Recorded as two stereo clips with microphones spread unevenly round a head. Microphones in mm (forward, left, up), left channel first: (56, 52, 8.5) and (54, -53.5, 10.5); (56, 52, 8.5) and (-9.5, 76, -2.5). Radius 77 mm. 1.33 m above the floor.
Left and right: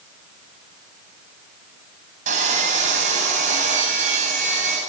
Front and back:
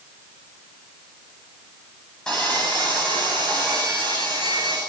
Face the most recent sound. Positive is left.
turn(degrees=-105)